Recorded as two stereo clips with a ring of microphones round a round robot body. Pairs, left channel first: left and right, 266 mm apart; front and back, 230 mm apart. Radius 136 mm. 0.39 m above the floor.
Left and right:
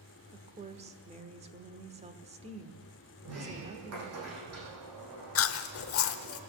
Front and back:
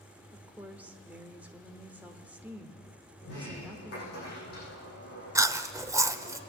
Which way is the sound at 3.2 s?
55° right.